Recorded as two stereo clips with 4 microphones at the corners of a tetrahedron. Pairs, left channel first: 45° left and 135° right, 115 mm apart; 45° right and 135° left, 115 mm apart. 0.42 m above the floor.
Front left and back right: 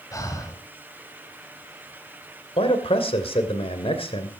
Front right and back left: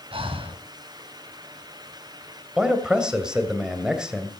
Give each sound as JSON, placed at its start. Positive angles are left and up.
{"t": 0.1, "sound": "breathing", "azimuth_deg": 105, "distance_m": 2.5}
{"t": 2.6, "sound": "a man speaking", "azimuth_deg": 50, "distance_m": 2.5}